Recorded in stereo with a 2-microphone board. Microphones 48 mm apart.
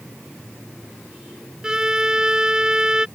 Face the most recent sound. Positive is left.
turn(degrees=-15)  # may be behind; listen again after turning